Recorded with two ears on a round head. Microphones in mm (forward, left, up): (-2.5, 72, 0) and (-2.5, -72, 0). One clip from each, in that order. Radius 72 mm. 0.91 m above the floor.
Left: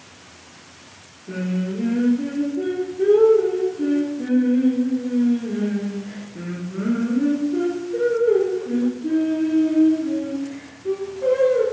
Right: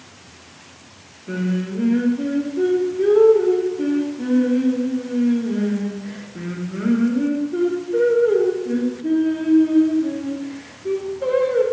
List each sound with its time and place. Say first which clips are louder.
1.3 s singing: right 2 dB; 40° right (ahead or behind), 0.6 m